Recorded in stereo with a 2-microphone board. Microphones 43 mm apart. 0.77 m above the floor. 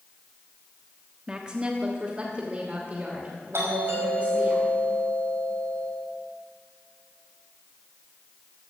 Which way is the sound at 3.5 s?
80° right.